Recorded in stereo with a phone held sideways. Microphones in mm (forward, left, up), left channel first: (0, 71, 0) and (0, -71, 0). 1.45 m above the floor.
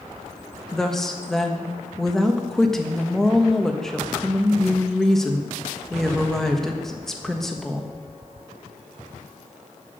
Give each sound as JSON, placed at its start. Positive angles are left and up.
{"t": 0.7, "sound": "a woman speaking", "side_deg": 5, "distance_m": 1.3}